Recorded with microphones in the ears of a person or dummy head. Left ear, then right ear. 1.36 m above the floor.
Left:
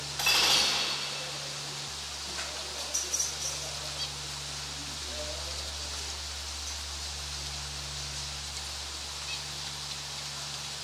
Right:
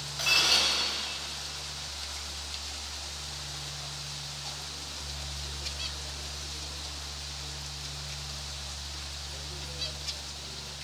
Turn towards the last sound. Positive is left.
turn(degrees=10)  # may be behind; listen again after turning